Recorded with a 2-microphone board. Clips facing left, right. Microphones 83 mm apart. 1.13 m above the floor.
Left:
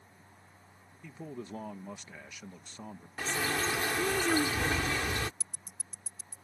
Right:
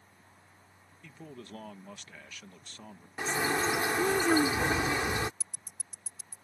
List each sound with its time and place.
1.0 s a man speaking: 15° left (ahead or behind)
3.2 s a bird: 20° right (ahead or behind)
5.4 s ticking: 35° left (ahead or behind)